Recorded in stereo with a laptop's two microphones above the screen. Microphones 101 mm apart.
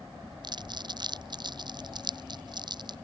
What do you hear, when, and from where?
0.4 s crumpling: 45° right (ahead or behind)